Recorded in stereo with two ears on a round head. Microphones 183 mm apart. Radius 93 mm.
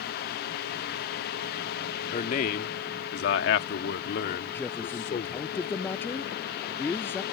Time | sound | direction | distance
2.1 | a man speaking | 35° left (ahead or behind) | ?
4.5 | a man speaking | 10° left (ahead or behind) | ?